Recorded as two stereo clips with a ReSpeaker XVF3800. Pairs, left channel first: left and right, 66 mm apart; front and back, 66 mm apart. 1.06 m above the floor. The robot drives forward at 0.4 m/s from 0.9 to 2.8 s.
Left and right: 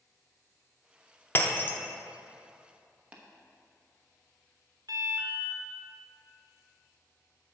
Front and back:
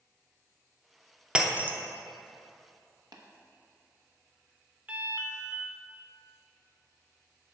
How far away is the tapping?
About 1.0 m.